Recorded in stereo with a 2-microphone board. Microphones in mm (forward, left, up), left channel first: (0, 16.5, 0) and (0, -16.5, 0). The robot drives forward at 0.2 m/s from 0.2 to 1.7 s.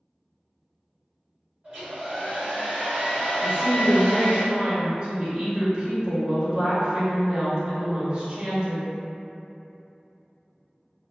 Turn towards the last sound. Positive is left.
turn(degrees=-35)  # may be behind; listen again after turning